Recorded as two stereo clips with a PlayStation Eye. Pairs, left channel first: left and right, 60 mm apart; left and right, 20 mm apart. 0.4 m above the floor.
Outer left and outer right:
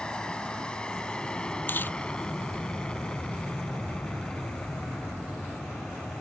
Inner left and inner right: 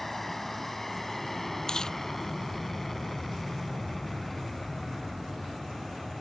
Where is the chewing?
35° left (ahead or behind).